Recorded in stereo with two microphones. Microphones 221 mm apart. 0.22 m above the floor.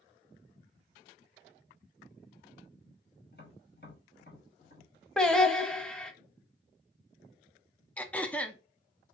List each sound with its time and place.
3.3 s tapping: 45° left (ahead or behind), 2 m
5.2 s singing: 5° left (ahead or behind), 0.6 m
8.0 s throat clearing: 5° left (ahead or behind), 0.5 m